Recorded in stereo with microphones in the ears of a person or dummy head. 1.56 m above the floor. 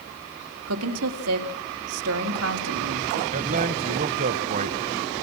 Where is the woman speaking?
85° right, 3.5 m.